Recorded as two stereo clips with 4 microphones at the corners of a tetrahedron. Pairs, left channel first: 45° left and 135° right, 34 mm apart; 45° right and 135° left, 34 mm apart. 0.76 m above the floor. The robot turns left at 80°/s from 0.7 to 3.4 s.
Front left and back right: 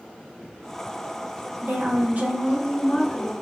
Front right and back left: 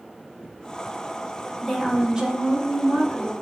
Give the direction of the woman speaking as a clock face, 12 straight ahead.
4 o'clock.